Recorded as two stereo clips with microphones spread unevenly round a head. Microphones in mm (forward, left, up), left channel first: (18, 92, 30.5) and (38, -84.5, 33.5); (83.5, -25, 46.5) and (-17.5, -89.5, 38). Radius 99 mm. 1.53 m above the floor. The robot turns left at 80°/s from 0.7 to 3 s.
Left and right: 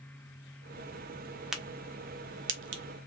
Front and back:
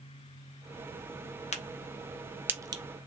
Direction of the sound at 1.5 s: 5° left.